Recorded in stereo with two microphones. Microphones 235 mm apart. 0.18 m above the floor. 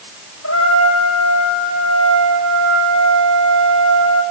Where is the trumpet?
80° left, 9 m.